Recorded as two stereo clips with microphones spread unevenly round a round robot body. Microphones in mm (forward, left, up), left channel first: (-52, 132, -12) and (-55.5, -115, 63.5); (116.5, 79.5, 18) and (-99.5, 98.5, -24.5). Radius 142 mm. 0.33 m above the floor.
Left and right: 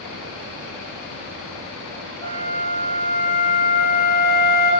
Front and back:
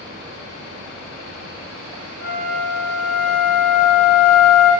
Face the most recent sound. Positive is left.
turn(degrees=15)